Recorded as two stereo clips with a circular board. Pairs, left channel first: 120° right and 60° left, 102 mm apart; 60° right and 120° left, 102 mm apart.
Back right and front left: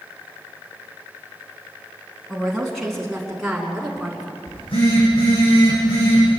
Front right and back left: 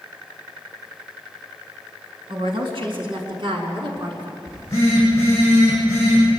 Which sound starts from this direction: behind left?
A woman speaking, at 2.3 s.